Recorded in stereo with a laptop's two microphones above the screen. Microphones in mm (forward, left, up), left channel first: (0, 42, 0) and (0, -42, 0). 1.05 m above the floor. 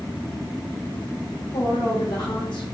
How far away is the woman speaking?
About 1.5 m.